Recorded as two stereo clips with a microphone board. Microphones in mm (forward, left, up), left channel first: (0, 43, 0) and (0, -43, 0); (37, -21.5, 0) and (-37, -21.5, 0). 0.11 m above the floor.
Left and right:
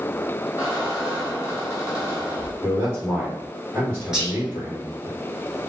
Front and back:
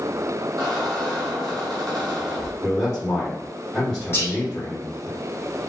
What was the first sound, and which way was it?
A squeak, 160° right.